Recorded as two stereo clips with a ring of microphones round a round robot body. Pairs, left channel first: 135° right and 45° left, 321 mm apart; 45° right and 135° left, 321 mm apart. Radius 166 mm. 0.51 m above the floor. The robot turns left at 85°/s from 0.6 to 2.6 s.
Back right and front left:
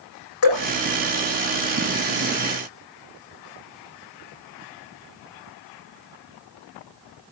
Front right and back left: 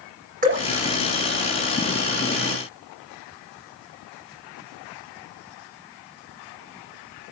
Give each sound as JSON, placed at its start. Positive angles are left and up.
{"t": 0.4, "sound": "dripping", "azimuth_deg": -160, "distance_m": 10.0}